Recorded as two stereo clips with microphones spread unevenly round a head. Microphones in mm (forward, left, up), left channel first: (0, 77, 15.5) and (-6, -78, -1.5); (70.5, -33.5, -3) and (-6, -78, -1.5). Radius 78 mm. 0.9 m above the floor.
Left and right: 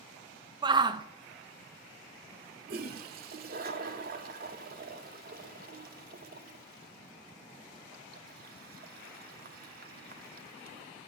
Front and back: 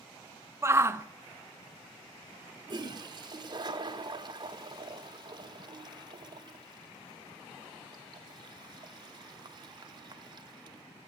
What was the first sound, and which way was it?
A shout, 110° right.